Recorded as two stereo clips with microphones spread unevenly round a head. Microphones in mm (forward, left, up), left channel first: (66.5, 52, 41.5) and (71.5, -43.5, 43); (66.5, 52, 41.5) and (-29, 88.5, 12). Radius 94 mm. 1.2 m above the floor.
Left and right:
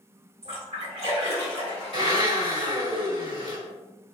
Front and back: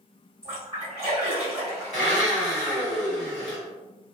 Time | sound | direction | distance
0.4 | a splash | 85° right | 1.3 m
1.9 | a blender | 55° right | 2.0 m